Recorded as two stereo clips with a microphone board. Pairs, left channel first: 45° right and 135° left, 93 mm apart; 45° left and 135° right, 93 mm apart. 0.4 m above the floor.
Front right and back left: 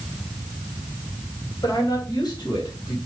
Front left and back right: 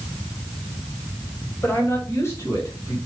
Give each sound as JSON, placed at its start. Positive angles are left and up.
{"t": 1.6, "sound": "a man speaking", "azimuth_deg": -15, "distance_m": 2.5}